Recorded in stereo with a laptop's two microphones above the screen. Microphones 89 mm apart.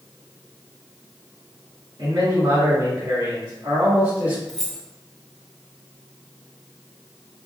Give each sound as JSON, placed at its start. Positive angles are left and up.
{"t": 2.0, "sound": "a man speaking", "side_deg": -65, "distance_m": 1.8}
{"t": 4.5, "sound": "keys jangling", "side_deg": 10, "distance_m": 0.5}